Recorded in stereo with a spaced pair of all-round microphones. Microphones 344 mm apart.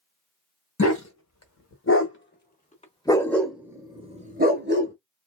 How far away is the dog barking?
About 1.7 m.